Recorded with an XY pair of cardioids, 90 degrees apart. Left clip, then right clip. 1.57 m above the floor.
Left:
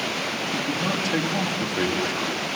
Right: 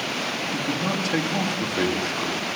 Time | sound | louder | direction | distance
0.5 | a man speaking | left 1 dB | 10° right | 4 m